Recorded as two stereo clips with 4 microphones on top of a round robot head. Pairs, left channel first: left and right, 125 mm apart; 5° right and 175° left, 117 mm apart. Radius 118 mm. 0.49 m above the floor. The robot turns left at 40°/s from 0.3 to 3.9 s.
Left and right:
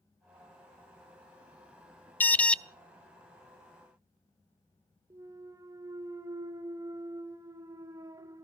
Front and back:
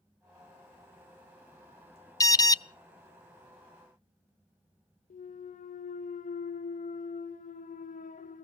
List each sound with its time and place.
2.2 s an alarm: 30° left, 0.5 m; by 2.6 s 15° left, 0.5 m
5.1 s a clunk: 20° right, 0.7 m